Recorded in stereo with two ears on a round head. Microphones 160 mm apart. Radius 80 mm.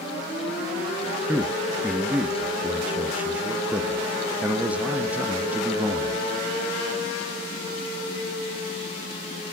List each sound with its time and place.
1.3 s a man speaking: 10° right (ahead or behind), 0.9 m